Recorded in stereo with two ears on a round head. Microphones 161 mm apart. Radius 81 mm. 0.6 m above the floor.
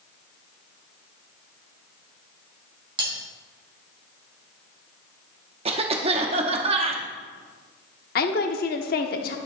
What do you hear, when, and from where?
3.0 s cutlery clinking: 30° right (ahead or behind), 3 m
5.7 s a cough: 35° right (ahead or behind), 0.8 m
8.2 s a woman speaking: 55° left (ahead or behind), 1.0 m